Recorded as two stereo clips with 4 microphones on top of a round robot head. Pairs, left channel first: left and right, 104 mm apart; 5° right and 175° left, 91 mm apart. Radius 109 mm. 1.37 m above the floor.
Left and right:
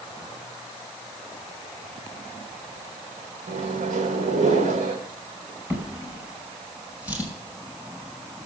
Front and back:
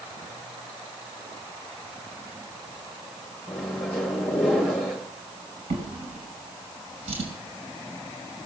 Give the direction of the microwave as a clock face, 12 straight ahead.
3 o'clock.